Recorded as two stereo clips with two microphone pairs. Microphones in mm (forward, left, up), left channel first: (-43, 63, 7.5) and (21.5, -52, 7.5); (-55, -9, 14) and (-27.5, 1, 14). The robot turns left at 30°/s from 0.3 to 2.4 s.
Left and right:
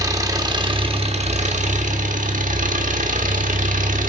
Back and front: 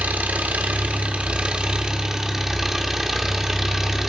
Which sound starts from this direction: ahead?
An engine running, at 0.0 s.